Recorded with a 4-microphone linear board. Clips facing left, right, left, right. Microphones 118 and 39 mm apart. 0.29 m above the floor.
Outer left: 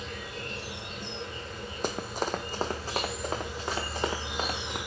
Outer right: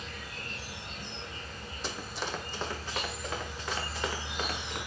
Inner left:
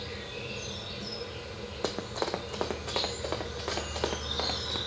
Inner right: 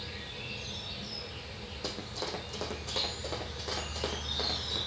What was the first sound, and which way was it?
An insect, 70° left (ahead or behind).